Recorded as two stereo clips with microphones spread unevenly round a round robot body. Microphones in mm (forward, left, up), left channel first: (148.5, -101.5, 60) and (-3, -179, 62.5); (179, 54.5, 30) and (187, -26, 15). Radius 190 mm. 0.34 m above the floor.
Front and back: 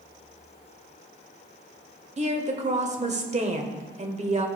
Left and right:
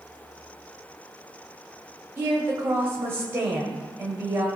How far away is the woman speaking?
About 1.6 m.